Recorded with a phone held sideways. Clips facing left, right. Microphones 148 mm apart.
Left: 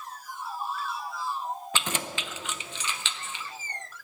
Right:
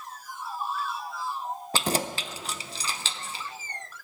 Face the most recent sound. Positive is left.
turn(degrees=-35)  # may be behind; listen again after turning